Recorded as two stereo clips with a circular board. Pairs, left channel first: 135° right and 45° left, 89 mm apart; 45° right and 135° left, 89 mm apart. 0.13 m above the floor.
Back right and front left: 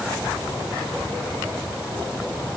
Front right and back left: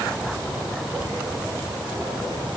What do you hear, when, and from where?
Only background noise.